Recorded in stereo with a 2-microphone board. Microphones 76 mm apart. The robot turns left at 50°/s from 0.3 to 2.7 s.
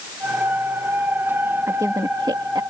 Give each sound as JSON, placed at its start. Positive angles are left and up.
{"t": 1.7, "sound": "a woman speaking", "side_deg": -45}